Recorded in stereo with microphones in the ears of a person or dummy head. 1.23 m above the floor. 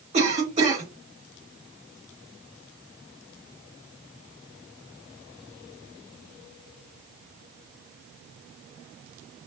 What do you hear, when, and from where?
0.1 s a cough: 30° right (ahead or behind), 2 m